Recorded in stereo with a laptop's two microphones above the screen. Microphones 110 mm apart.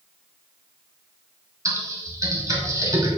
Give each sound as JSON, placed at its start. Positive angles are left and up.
{"t": 1.6, "sound": "typing on a keyboard", "side_deg": -30, "distance_m": 0.7}